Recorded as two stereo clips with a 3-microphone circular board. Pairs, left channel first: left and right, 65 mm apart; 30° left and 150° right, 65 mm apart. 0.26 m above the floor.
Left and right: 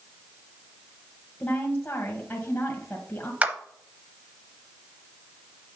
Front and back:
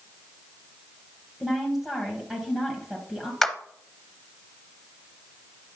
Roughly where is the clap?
Ahead right.